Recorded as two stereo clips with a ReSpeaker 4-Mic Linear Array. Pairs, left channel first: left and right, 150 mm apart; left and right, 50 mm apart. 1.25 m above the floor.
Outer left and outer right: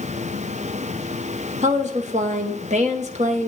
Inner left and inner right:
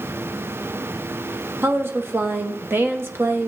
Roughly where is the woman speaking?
Right.